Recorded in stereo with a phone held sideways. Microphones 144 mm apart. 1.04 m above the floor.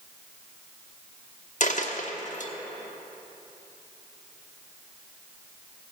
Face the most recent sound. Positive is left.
turn(degrees=60)  # may be behind; listen again after turning